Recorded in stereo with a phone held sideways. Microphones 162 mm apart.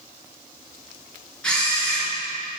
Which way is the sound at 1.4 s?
5° left (ahead or behind).